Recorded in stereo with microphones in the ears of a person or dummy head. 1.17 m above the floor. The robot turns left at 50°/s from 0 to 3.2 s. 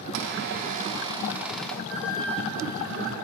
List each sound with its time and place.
0.1 s a squeak: 115° right, 0.6 m; by 1.8 s 165° left, 0.6 m
1.9 s a flute: 120° right, 0.6 m; by 3.2 s 175° left, 0.6 m